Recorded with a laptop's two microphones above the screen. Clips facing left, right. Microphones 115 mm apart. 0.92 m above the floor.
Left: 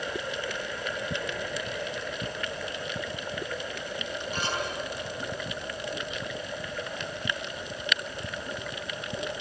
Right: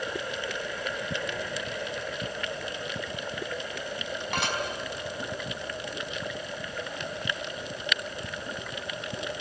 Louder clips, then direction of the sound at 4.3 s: Right 2 dB; 85° right.